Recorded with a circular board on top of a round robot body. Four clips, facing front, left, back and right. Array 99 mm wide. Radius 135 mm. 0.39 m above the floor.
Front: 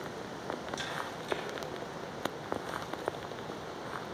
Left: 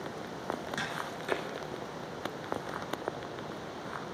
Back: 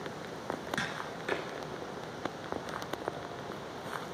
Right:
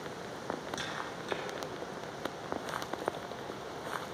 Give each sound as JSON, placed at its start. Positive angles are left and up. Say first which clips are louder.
{"t": 0.8, "sound": "tapping", "louder": "left 2 dB, back 1 dB", "azimuth_deg": 155, "distance_m": 6.5}